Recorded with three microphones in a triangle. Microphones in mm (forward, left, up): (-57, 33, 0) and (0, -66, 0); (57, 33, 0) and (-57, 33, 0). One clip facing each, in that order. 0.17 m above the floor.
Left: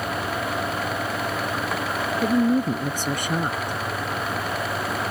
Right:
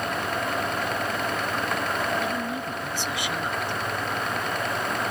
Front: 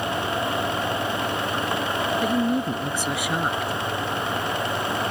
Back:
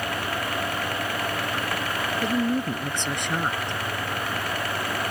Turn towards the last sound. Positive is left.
turn(degrees=80)